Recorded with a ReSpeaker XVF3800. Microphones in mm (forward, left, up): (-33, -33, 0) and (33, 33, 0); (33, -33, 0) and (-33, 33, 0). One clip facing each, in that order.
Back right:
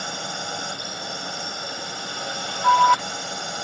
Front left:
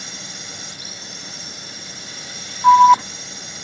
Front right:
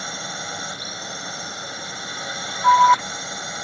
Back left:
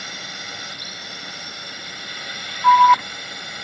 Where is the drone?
105° right; by 3.6 s 110° right.